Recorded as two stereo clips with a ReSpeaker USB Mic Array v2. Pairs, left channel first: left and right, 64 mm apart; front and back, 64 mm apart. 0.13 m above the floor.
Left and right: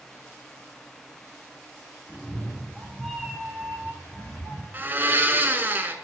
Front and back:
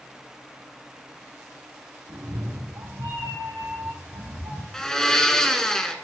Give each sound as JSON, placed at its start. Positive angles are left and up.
{"t": 2.1, "sound": "a cat meowing", "azimuth_deg": 180, "distance_m": 1.9}
{"t": 4.7, "sound": "a blender", "azimuth_deg": -75, "distance_m": 0.6}